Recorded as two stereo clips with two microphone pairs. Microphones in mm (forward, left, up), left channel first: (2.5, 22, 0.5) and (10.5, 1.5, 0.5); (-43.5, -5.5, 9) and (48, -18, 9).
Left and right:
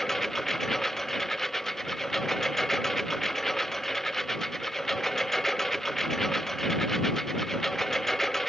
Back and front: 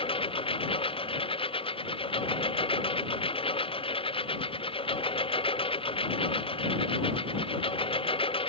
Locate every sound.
0.0 s a lawn mower: 175° right